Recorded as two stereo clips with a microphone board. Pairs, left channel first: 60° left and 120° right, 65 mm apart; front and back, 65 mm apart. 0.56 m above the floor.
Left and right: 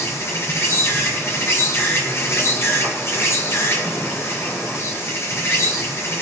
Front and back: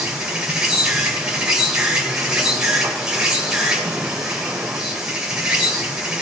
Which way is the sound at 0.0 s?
100° left.